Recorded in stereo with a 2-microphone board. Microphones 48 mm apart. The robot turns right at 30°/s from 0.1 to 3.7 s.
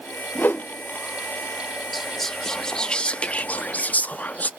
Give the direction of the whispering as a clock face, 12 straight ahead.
12 o'clock.